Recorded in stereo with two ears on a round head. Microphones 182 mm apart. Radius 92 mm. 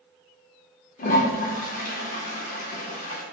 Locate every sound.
1.0 s a toilet flushing: 40° left (ahead or behind), 0.5 m